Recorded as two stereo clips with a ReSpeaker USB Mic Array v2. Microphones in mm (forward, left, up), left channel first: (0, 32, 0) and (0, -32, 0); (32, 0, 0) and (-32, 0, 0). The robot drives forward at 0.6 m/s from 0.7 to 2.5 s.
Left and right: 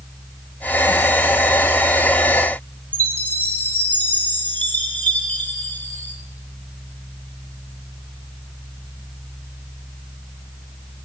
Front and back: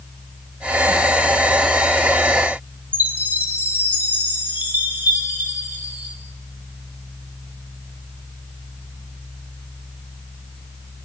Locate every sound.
2.9 s a chime: 140° left, 0.9 m